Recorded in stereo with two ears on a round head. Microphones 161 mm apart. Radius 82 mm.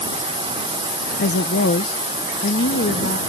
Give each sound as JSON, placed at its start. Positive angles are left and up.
{"t": 1.2, "sound": "a woman speaking", "side_deg": 65}